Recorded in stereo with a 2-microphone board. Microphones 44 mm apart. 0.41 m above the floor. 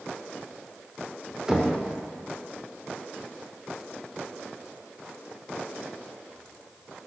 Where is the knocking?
15° right (ahead or behind), 0.8 m.